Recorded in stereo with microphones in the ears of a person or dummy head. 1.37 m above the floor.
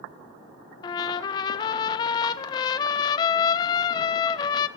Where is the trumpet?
20° left (ahead or behind), 1.1 m.